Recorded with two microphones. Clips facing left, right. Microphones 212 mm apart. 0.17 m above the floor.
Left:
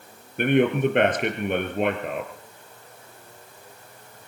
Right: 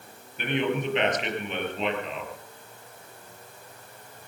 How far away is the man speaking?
About 4 m.